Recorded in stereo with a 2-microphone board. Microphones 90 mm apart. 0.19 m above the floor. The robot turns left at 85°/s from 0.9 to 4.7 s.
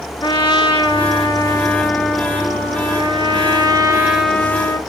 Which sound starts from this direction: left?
A trumpet, at 0.2 s.